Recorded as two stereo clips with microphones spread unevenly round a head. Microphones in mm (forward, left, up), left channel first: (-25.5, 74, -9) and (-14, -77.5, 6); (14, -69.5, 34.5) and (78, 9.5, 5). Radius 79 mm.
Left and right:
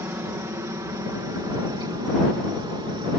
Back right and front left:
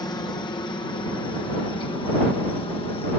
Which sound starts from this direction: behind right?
A helicopter, at 0.0 s.